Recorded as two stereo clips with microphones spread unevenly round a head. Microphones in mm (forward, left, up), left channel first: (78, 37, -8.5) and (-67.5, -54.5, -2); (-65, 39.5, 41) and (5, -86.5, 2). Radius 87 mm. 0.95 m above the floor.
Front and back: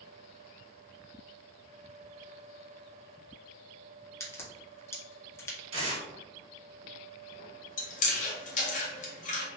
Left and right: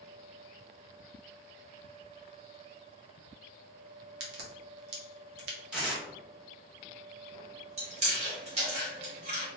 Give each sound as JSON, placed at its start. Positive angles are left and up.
{"t": 4.2, "sound": "a crack", "azimuth_deg": -45, "distance_m": 0.8}
{"t": 5.7, "sound": "tearing paper", "azimuth_deg": -140, "distance_m": 1.3}
{"t": 7.8, "sound": "chewing", "azimuth_deg": 0, "distance_m": 0.9}